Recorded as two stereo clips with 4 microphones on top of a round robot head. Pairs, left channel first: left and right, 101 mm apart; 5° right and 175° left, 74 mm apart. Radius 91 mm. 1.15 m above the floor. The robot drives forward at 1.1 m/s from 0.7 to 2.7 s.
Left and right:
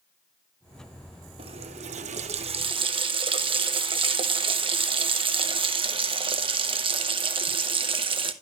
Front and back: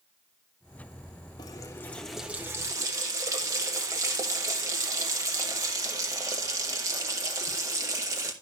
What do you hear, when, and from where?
1.4 s a running tap: 50° right, 1.2 m; by 8.3 s 125° right, 1.1 m